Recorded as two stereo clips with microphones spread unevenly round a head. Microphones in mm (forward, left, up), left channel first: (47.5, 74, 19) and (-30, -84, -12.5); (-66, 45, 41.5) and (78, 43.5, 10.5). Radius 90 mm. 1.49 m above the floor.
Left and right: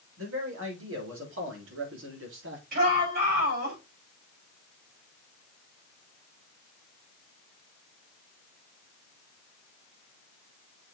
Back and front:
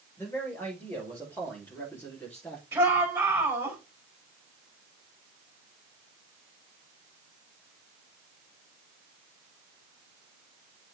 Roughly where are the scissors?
I don't hear scissors.